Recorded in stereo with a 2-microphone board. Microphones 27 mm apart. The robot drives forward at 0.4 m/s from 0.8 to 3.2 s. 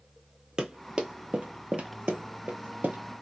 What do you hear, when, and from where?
0.6 s running footsteps: 25° right (ahead or behind), 0.8 m; by 3.0 s 60° right (ahead or behind), 0.7 m